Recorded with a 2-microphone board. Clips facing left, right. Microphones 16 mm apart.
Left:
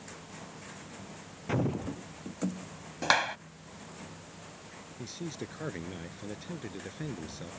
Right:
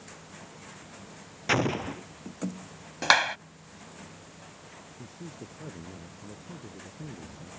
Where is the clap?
25° right (ahead or behind).